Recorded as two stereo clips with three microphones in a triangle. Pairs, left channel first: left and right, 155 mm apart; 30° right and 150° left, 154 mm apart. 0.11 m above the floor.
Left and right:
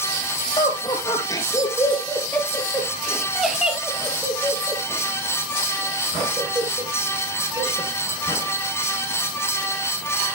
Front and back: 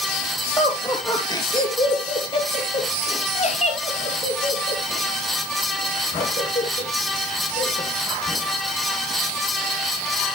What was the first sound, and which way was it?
Laughter, 35° left.